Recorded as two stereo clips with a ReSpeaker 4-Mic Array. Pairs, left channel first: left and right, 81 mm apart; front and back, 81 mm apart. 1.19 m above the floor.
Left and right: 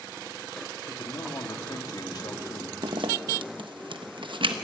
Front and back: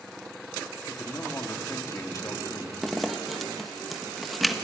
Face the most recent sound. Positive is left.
turn(degrees=-90)